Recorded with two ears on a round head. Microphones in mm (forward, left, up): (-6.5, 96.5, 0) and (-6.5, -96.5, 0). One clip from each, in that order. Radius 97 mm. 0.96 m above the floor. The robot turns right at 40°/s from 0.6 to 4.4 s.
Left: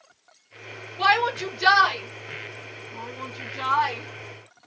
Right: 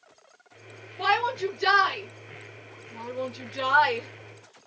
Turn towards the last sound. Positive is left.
turn(degrees=-65)  # may be behind; listen again after turning